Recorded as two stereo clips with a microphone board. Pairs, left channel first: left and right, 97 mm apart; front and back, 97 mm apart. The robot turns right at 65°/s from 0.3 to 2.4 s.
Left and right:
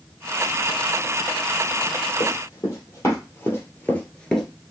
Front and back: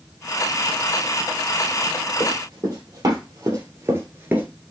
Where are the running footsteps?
120° left, 3 m; by 4.5 s 175° left, 1.3 m.